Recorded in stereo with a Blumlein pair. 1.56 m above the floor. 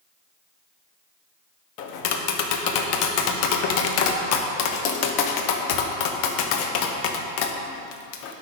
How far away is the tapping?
About 0.8 m.